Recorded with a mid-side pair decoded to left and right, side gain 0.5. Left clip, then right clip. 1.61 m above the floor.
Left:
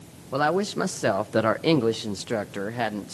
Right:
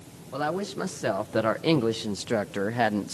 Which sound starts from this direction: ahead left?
A woman speaking, at 0.3 s.